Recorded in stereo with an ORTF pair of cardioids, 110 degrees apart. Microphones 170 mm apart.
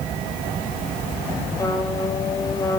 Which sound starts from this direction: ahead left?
A trumpet, at 1.6 s.